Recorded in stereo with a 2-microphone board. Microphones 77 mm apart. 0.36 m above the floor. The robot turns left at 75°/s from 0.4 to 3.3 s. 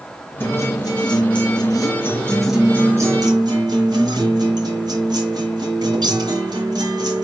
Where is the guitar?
150° left, 4.5 m; by 7.2 s 65° right, 4.5 m.